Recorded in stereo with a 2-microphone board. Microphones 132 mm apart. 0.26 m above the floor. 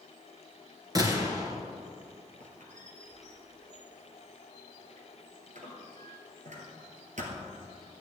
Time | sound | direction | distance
0.9 | a gunshot | 25° right (ahead or behind) | 1.9 m
2.4 | a squeak | 65° right (ahead or behind) | 1.9 m